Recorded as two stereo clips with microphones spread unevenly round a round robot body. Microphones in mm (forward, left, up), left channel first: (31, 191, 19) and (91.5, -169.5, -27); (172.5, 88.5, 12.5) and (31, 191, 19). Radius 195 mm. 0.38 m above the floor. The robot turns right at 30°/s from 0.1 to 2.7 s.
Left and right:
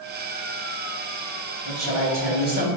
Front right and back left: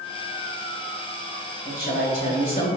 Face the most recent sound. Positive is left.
turn(degrees=-20)